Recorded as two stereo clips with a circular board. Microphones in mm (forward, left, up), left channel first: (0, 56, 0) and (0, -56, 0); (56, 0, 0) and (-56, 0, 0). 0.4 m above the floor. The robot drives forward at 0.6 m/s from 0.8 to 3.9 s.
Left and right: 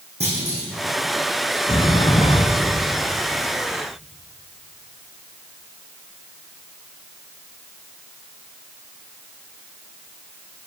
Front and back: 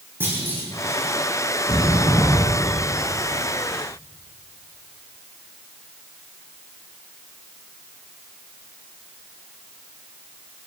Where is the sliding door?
50° left, 1.8 m; by 2.7 s 70° left, 1.5 m.